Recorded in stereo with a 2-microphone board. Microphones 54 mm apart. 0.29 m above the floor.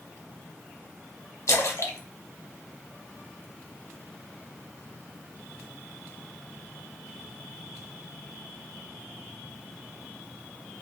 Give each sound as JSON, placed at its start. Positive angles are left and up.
{"t": 1.5, "sound": "a splash", "side_deg": 65, "distance_m": 0.7}